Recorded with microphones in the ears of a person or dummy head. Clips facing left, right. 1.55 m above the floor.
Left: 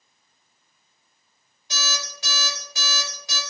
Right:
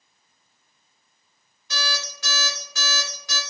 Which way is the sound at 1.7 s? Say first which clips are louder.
Right 2 dB; 20° left (ahead or behind).